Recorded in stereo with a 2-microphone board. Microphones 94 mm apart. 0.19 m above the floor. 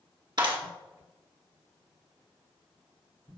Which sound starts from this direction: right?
A clap, at 0.4 s.